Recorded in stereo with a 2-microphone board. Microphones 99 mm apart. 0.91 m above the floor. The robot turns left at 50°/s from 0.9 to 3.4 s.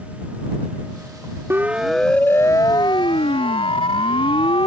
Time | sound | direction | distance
1.5 | a siren | 25° right (ahead or behind) | ?